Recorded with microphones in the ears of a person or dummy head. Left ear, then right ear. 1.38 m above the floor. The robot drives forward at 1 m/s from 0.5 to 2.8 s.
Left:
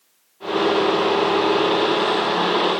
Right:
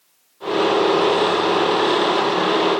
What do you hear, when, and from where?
Only background noise.